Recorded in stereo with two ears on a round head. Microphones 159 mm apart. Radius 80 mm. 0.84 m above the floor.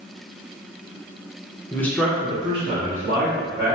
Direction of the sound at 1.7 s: 15° left (ahead or behind).